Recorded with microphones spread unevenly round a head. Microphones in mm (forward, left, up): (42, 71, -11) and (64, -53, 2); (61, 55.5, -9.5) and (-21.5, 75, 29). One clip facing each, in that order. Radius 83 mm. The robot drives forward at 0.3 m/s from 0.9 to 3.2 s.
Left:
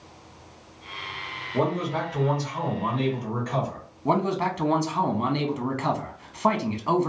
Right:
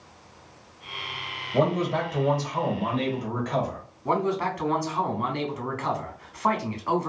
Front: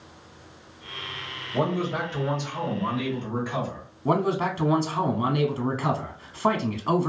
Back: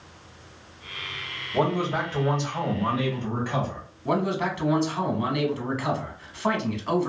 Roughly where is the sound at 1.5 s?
Right.